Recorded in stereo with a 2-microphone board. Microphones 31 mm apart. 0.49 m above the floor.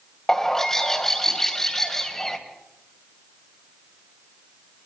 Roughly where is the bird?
Centre.